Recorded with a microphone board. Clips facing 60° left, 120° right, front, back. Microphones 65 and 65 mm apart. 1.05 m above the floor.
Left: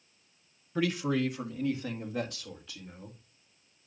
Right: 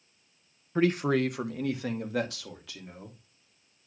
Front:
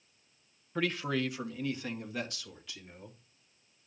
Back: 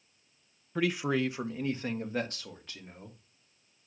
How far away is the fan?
I don't hear a fan.